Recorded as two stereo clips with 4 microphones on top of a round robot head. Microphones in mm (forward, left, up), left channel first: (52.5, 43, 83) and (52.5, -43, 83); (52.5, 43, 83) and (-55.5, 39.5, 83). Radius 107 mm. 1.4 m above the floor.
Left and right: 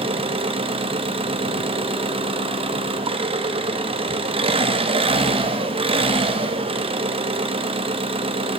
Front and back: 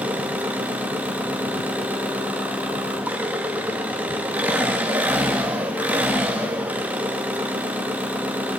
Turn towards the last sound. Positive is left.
turn(degrees=-100)